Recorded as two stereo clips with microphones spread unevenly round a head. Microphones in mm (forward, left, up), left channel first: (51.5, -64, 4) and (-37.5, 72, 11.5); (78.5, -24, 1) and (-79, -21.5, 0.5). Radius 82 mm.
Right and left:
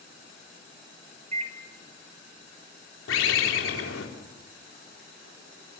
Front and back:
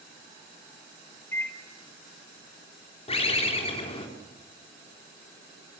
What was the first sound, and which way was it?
A microwave, 75° left.